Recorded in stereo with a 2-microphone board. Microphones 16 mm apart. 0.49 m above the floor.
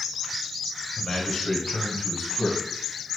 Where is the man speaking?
55° left (ahead or behind), 2.5 m; by 2.6 s 75° left (ahead or behind), 4 m.